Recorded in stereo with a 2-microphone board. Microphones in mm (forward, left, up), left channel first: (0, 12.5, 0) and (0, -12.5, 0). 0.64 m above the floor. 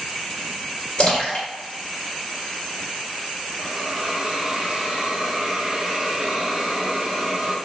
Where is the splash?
40° left (ahead or behind), 1.8 m.